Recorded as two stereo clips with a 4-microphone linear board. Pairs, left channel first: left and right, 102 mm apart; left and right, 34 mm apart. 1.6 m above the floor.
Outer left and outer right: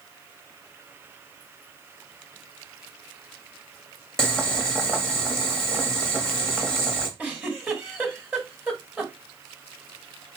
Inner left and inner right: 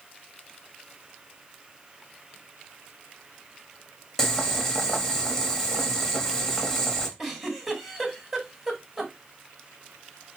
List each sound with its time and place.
4.2 s boiling: 5° left (ahead or behind), 1.1 m
7.2 s a giggle: 10° right (ahead or behind), 1.6 m